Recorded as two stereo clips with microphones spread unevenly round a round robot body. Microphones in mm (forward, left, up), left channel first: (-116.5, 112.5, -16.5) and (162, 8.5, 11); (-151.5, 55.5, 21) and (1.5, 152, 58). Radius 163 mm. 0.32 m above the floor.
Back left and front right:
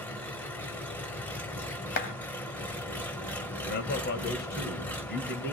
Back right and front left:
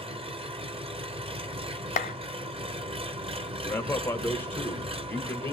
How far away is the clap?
About 1.0 m.